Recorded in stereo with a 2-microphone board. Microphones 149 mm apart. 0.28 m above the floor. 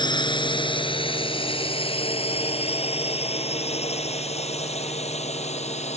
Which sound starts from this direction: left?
A drone, at 0.0 s.